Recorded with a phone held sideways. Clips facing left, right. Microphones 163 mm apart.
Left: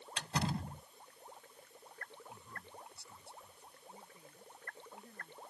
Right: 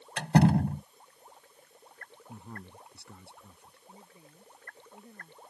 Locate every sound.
0.2 s a door slam: 65° right (ahead or behind)
2.3 s a man speaking: 65° right (ahead or behind)
3.9 s a woman speaking: 20° right (ahead or behind)